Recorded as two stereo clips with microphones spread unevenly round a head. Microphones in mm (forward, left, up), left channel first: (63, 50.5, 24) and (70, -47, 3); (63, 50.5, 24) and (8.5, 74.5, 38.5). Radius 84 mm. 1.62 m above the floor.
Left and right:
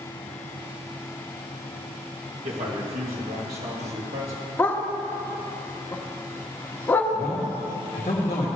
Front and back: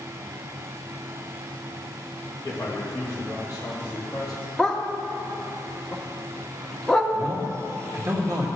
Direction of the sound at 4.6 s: 80° left.